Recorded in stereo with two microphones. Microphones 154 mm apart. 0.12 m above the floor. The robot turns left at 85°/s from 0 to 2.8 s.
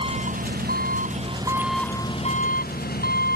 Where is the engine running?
35° right; by 3.4 s 90° left.